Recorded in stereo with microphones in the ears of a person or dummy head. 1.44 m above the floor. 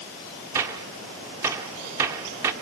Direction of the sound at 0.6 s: 15° right (ahead or behind).